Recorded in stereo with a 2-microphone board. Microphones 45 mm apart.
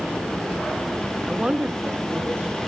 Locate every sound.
1.3 s a woman speaking: centre (ahead or behind), 0.6 m; by 2.6 s 40° right (ahead or behind), 1.7 m